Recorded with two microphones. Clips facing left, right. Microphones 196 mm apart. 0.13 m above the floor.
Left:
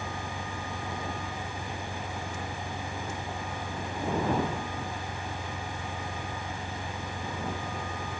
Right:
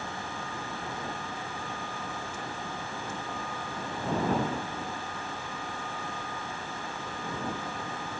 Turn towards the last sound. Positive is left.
turn(degrees=85)